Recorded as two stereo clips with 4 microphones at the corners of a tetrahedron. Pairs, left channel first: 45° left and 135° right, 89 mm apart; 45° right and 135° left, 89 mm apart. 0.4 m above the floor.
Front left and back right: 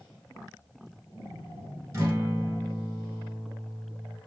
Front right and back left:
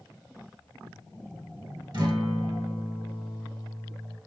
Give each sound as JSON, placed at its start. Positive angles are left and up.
{"t": 1.9, "sound": "a guitar", "azimuth_deg": 165, "distance_m": 1.0}